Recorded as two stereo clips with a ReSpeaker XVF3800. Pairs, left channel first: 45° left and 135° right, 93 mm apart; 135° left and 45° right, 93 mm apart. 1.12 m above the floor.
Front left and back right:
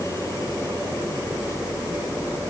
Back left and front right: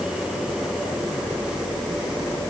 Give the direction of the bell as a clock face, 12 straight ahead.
I don't hear a bell.